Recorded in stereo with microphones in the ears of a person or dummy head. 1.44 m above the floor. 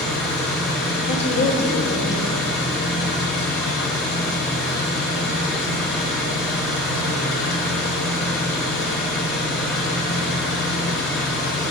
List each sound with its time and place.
0.0 s an engine running: 5° left (ahead or behind), 1.9 m
1.1 s a woman speaking: 40° left (ahead or behind), 1.4 m